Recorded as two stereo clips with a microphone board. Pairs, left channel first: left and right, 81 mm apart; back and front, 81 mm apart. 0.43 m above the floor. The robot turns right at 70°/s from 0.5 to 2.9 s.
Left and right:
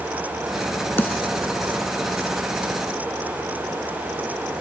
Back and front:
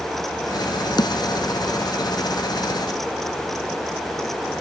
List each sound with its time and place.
1.0 s a snare drum: 155° left; by 1.2 s 170° left